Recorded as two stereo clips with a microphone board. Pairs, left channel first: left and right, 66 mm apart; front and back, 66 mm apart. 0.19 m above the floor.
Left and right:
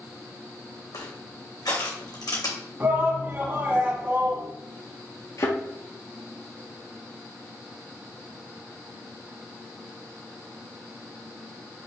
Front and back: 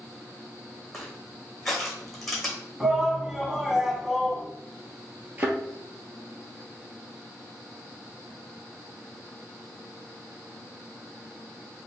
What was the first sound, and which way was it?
Crushing, 90° left.